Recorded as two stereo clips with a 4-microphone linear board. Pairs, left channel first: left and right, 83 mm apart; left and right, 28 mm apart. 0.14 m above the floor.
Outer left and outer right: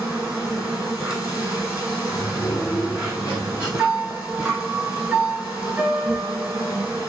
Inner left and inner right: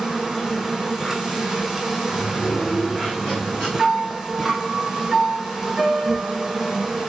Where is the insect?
15° right (ahead or behind), 1.3 m.